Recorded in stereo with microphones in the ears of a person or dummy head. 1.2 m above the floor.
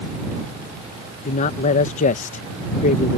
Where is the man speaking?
40° left (ahead or behind).